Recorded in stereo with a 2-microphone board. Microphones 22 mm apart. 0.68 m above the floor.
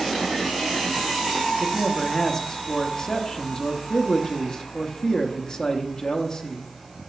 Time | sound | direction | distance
1.6 | a man speaking | 35° left (ahead or behind) | 0.9 m